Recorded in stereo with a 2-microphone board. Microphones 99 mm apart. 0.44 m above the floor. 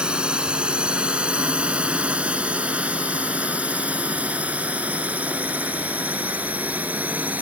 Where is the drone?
10° right (ahead or behind); by 7.4 s 15° right (ahead or behind).